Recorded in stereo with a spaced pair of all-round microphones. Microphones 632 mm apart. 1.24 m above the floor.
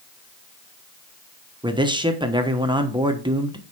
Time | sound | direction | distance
1.6 | a man speaking | 5° right (ahead or behind) | 1.1 m